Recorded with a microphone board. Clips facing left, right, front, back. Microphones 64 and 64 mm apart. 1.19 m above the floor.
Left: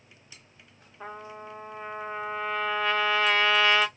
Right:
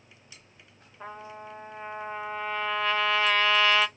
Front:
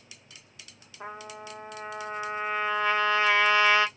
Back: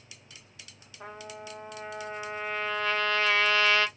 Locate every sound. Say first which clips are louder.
1.0 s a trumpet: left 1 dB, front 2 dB; 5° left, 0.7 m